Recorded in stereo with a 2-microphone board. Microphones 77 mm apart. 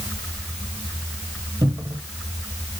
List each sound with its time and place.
1.6 s a cupboard door: 75° right (ahead or behind), 1.8 m